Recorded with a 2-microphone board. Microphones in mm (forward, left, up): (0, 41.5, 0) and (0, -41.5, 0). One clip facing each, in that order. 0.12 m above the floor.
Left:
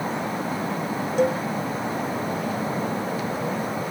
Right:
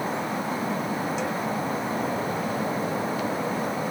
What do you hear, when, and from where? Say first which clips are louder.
1.2 s a cowbell: left 7 dB; 50° left (ahead or behind)